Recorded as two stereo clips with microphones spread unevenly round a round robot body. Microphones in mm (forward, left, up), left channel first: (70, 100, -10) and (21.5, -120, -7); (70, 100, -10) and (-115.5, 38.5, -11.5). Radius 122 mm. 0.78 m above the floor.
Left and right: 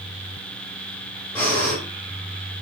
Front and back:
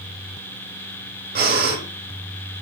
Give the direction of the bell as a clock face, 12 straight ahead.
I don't hear a bell.